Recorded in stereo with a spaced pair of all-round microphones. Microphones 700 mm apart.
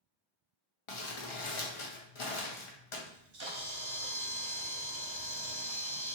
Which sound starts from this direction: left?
Crumpling, at 0.9 s.